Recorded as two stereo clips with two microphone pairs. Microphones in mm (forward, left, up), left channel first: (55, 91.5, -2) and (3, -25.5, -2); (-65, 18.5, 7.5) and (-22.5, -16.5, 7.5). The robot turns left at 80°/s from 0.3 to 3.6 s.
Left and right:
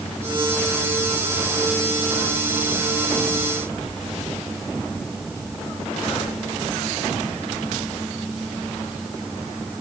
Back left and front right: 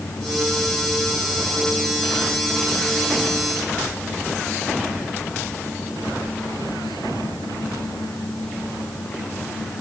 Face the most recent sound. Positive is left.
No sound to turn to.